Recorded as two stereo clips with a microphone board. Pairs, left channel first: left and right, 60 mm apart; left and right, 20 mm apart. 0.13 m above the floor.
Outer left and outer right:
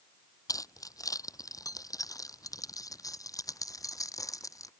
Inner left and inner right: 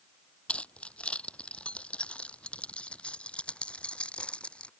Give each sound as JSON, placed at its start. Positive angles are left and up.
{"t": 0.5, "sound": "keys jangling", "side_deg": 75}